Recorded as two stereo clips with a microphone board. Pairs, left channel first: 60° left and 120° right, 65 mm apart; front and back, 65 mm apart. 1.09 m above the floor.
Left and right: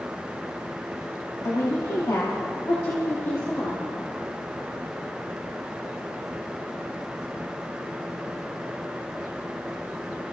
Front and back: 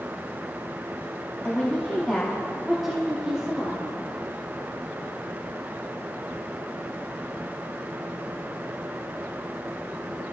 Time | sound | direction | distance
1.4 | a woman speaking | 65° left | 2.5 m